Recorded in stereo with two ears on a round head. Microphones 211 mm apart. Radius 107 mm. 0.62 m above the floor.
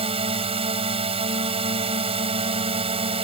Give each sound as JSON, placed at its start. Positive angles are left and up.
{"t": 0.0, "sound": "a drone", "side_deg": -25}